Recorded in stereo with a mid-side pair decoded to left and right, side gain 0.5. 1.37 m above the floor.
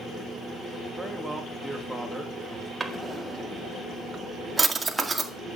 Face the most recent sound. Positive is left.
turn(degrees=-20)